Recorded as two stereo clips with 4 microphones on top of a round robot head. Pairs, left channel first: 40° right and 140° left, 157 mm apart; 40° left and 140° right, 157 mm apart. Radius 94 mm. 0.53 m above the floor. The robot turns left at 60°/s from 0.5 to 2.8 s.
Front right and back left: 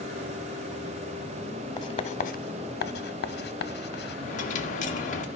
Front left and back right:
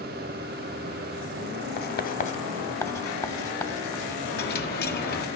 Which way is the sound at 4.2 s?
5° left.